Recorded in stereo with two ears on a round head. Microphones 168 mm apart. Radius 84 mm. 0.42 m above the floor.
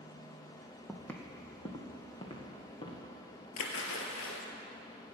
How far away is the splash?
About 1.7 m.